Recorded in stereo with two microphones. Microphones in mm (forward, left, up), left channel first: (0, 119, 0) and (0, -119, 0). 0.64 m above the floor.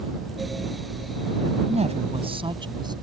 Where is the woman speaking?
30° right (ahead or behind); by 2.9 s 20° right (ahead or behind).